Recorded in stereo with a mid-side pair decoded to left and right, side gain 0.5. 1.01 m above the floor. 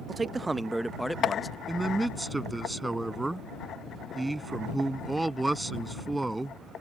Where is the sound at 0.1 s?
30° right; by 1.6 s 20° left.